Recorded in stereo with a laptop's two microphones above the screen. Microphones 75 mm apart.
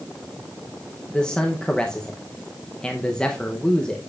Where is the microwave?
I don't hear a microwave.